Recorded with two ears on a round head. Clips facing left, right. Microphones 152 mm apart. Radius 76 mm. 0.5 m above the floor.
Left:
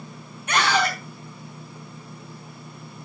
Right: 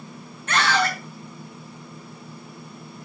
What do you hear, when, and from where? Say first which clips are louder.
0.5 s a scream: even; 10° left (ahead or behind), 2.5 m